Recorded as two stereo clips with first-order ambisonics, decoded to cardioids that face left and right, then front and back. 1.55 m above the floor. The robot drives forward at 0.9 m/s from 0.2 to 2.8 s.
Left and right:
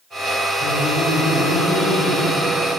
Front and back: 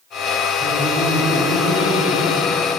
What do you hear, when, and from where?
0.6 s laughter: 60° left, 5.5 m; by 2.8 s 80° left, 5 m